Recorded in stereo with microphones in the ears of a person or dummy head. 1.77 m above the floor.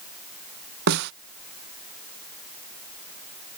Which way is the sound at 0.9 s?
65° right (ahead or behind).